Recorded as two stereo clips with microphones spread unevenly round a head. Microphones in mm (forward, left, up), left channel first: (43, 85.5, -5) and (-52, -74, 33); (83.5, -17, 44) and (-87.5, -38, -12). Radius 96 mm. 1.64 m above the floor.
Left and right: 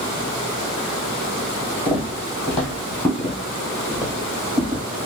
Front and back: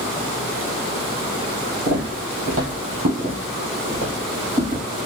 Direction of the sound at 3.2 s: 50° left.